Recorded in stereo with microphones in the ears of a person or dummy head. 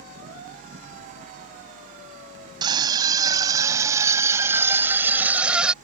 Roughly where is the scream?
Right.